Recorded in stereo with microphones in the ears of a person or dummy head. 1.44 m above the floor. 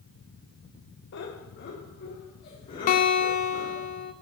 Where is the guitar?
40° left (ahead or behind), 0.5 m.